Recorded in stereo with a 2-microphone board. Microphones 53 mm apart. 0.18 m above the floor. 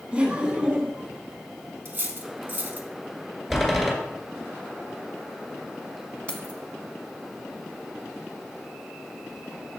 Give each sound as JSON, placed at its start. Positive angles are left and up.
{"t": 0.1, "sound": "laughter", "side_deg": -20, "distance_m": 1.4}
{"t": 1.9, "sound": "cutlery clinking", "side_deg": -35, "distance_m": 0.9}
{"t": 3.5, "sound": "a door slam", "side_deg": 0, "distance_m": 2.0}
{"t": 6.3, "sound": "keys jangling", "side_deg": 25, "distance_m": 0.9}